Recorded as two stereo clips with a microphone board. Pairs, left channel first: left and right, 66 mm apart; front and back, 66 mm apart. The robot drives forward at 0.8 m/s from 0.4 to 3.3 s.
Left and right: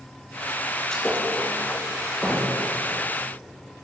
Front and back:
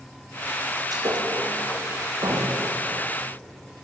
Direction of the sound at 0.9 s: 170° left.